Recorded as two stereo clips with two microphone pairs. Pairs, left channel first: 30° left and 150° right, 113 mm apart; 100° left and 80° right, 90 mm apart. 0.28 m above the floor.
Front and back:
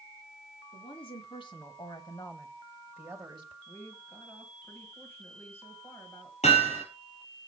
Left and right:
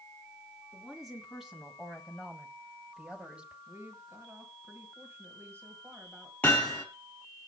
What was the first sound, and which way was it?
A woman speaking, 10° left.